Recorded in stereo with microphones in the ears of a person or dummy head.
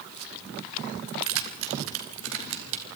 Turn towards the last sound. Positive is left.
turn(degrees=-75)  # may be behind; listen again after turning